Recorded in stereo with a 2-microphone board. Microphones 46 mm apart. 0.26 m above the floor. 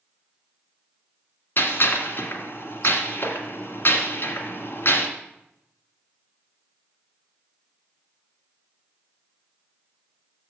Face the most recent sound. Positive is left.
turn(degrees=55)  # may be behind; listen again after turning